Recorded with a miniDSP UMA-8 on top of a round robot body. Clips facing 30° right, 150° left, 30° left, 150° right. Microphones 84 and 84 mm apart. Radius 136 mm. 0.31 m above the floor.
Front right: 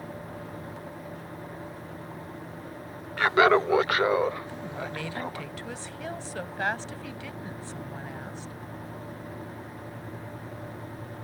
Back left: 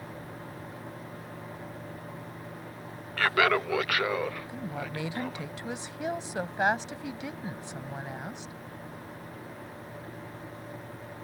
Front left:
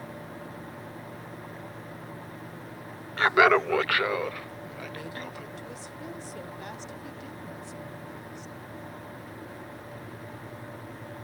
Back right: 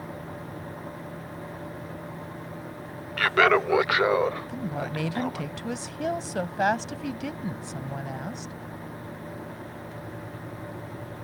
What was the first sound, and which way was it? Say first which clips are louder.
Laughter: front right 5 dB, even; 20° left.